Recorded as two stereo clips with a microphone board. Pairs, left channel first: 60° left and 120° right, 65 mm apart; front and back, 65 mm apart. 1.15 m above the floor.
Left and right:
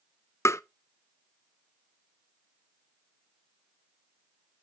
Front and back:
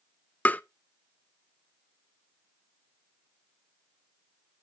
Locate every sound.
0.5 s tapping: 55° left, 0.5 m